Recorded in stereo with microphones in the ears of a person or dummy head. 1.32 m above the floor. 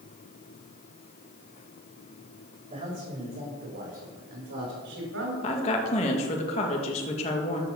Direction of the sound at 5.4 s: 35° left (ahead or behind).